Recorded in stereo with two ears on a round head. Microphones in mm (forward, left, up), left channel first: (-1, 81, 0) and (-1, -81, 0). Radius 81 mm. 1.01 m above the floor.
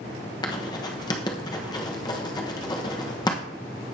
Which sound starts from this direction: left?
Writing, at 0.4 s.